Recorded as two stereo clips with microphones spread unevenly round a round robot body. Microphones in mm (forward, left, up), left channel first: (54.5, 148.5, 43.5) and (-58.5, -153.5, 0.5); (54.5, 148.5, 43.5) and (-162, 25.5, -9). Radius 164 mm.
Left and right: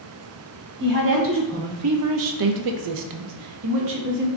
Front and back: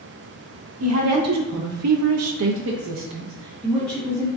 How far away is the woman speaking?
About 1.3 m.